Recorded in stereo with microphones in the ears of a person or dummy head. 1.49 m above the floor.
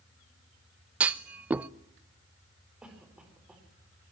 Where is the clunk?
15° right (ahead or behind), 0.7 m.